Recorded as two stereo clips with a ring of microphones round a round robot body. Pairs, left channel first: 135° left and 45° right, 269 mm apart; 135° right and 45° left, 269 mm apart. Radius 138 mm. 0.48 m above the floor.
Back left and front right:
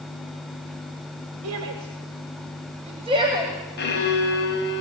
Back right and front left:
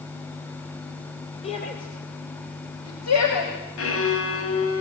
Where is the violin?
170° right, 3.5 m.